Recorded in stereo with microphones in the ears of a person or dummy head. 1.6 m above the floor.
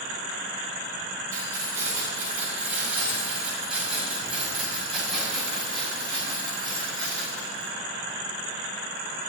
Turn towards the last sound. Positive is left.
turn(degrees=15)  # may be behind; listen again after turning